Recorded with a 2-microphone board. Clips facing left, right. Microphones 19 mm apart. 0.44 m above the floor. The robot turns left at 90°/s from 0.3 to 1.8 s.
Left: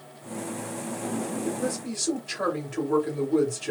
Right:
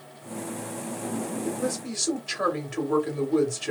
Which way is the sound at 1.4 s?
25° right (ahead or behind).